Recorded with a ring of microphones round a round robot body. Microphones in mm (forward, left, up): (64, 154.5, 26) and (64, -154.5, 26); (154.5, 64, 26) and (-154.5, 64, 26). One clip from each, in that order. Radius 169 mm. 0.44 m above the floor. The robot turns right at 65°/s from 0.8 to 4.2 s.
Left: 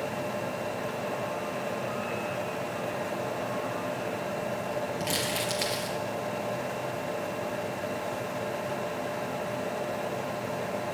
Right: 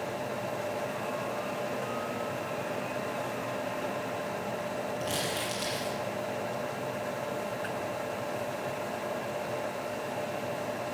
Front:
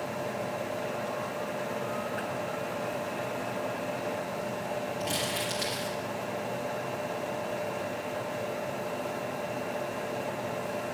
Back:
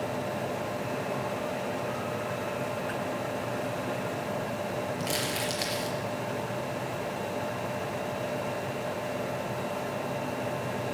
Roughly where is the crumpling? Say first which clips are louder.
Left 2 dB, even; behind left.